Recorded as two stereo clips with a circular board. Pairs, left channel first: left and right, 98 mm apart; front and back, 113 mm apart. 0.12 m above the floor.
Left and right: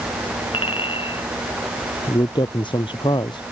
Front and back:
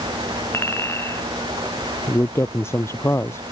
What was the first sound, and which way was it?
A clink, 65° left.